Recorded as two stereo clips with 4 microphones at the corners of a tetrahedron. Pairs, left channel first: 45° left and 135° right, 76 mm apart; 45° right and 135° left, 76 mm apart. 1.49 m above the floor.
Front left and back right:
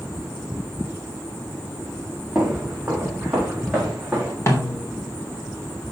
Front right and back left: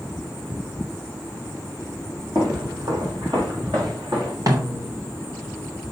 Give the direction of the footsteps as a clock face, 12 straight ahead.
7 o'clock.